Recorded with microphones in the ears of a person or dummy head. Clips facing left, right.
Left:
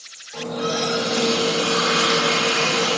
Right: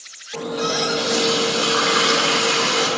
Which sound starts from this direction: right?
A running tap, at 0.3 s.